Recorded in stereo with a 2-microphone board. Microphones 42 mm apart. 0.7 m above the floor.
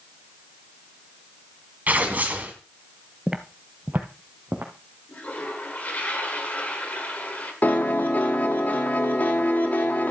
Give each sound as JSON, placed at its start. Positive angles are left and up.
{"t": 1.9, "sound": "tearing paper", "side_deg": -40, "distance_m": 1.7}
{"t": 3.3, "sound": "footsteps", "side_deg": -15, "distance_m": 0.8}
{"t": 5.1, "sound": "a toilet flushing", "side_deg": 40, "distance_m": 2.0}
{"t": 7.6, "sound": "a piano", "side_deg": 40, "distance_m": 1.0}